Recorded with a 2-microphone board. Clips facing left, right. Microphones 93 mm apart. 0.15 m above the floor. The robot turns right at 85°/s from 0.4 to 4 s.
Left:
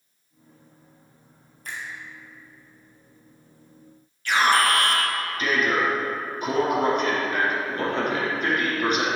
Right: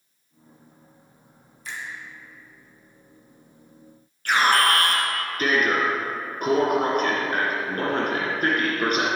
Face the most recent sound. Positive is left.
turn(degrees=-50)  # may be behind; listen again after turning